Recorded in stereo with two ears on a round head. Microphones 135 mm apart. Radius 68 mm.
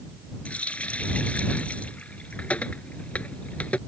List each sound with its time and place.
0.5 s a running tap: 10° left (ahead or behind)